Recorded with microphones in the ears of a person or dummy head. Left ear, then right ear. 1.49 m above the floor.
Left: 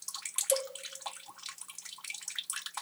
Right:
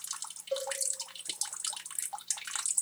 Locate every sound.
0.5 s a cowbell: 55° left (ahead or behind), 0.8 m